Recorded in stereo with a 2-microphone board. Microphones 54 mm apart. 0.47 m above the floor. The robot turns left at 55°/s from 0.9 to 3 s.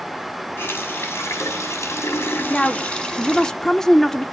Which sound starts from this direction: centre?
A woman speaking, at 2.5 s.